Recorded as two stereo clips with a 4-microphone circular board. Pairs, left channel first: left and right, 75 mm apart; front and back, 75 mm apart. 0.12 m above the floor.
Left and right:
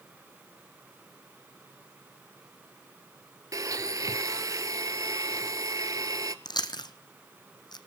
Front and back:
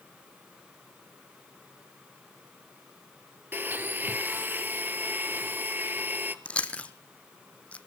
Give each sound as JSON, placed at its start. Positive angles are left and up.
{"t": 3.5, "sound": "a blender", "azimuth_deg": -120, "distance_m": 0.8}
{"t": 6.5, "sound": "chewing", "azimuth_deg": 75, "distance_m": 0.8}